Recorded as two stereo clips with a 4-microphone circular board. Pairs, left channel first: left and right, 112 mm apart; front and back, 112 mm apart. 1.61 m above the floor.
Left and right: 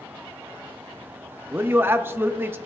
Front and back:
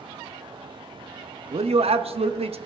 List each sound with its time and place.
1.5 s a man speaking: 160° right, 0.5 m